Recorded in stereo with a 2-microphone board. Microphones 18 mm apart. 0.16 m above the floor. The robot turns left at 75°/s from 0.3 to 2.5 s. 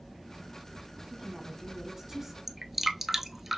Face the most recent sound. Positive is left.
turn(degrees=-10)  # may be behind; listen again after turning